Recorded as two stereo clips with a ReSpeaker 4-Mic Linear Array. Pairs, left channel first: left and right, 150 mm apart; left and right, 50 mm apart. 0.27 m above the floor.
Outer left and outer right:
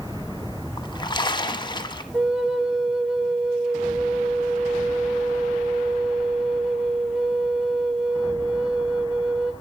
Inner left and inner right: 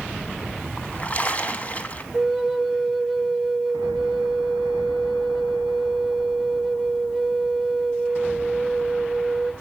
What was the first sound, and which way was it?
A splash, 30° left (ahead or behind).